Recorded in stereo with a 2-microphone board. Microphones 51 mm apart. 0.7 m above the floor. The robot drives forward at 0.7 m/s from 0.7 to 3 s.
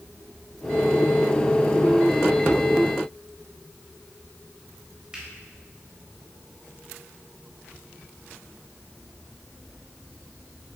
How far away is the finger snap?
About 3 m.